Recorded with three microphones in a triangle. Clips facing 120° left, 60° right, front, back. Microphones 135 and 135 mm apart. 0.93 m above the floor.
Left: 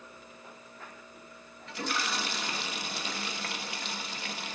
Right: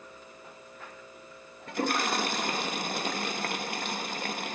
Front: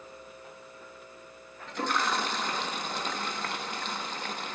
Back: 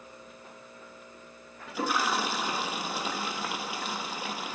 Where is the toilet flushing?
100° right, 0.9 m.